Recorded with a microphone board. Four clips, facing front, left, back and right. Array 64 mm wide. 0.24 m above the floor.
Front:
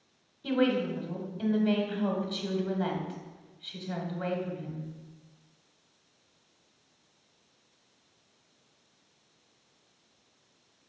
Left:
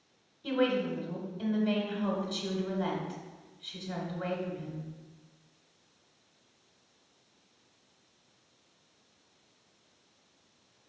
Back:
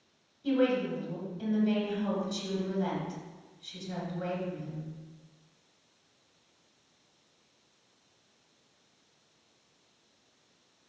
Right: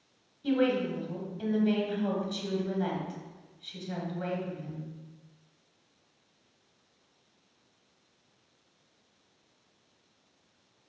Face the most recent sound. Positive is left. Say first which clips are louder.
# right 2 dB, even
turn(degrees=5)